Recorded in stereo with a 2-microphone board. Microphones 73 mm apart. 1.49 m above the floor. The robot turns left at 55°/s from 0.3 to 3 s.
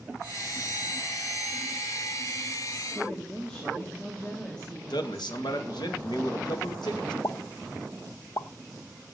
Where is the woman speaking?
15° left (ahead or behind), 2.5 m; by 5.3 s 10° left (ahead or behind), 2.5 m.